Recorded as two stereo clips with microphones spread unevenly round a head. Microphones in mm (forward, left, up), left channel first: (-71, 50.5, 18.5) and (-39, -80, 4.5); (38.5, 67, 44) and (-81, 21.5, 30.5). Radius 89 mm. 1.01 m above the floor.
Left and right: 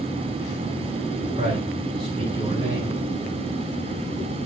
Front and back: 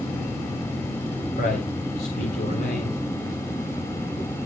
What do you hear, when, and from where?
1.4 s a man speaking: 10° right, 3.5 m